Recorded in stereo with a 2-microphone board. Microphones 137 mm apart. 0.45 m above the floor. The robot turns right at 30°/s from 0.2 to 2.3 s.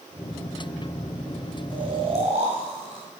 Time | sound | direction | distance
1.7 | snoring | 35° right (ahead or behind) | 2 m